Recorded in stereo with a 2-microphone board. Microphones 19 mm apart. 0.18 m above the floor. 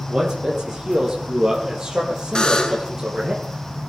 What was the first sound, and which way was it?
A man speaking, 30° right (ahead or behind).